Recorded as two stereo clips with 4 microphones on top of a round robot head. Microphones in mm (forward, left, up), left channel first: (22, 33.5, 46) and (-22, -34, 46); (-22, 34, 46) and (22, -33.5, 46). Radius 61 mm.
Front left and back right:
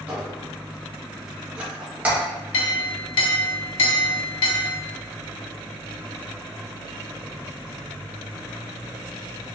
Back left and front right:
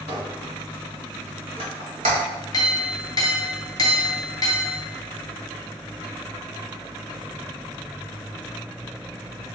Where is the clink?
75° left, 0.8 m.